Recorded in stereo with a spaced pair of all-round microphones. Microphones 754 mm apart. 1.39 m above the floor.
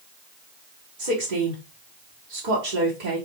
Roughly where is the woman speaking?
Right.